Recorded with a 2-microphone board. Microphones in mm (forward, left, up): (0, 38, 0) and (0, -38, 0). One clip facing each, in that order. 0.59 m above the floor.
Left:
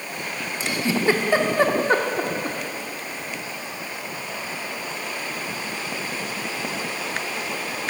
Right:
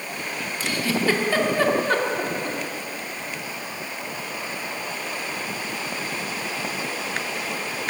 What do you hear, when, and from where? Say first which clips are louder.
0.6 s a giggle: left 2 dB; 20° left (ahead or behind), 0.8 m